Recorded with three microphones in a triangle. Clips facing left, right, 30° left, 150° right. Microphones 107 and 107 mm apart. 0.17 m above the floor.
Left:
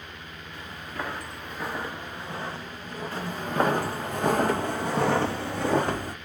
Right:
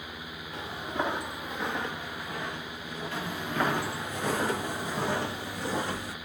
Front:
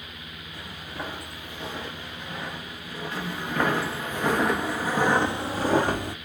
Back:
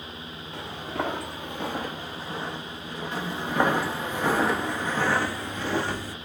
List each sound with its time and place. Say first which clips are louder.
0.5 s footsteps: right 4 dB, back 7 dB; 145° right, 1.1 m; by 4.1 s 125° left, 2 m
3.1 s footsteps: left 5 dB, back 2 dB; 145° left, 1.4 m; by 6.2 s 55° left, 0.8 m